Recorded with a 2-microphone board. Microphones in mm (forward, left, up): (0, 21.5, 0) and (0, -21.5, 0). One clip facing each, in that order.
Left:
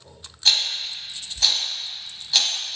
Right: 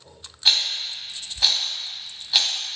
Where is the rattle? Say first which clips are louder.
Even; 15° right (ahead or behind), 0.6 m.